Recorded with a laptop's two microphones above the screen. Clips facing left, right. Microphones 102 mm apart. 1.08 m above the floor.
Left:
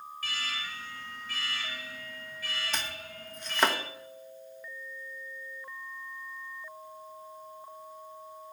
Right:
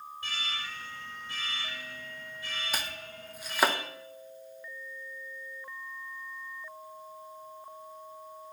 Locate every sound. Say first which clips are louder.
0.2 s an alarm: left 1 dB; 30° right (ahead or behind), 6 m
2.7 s chopping: even; 10° right (ahead or behind), 0.8 m